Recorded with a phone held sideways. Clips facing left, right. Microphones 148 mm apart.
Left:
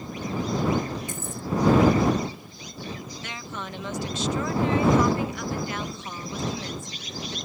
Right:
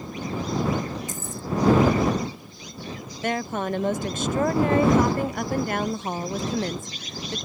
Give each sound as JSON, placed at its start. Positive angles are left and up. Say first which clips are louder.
{"t": 1.1, "sound": "keys jangling", "louder": "even", "side_deg": 65}
{"t": 3.2, "sound": "a woman speaking", "louder": "right 14 dB", "side_deg": -55}